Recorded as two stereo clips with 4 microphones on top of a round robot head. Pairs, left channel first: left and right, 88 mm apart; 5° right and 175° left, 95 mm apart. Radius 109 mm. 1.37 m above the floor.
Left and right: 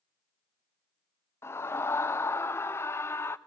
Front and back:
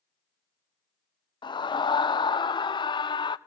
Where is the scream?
30° left, 0.7 m.